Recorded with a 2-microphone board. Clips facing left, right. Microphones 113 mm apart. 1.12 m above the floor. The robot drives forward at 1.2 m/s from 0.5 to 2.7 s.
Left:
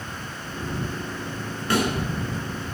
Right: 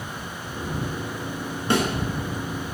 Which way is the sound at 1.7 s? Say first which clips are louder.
Right 1 dB; 25° right (ahead or behind).